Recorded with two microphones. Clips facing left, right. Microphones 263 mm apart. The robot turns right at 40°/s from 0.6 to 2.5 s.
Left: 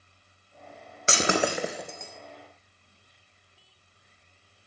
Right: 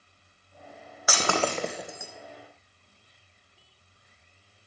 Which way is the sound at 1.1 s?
30° left (ahead or behind).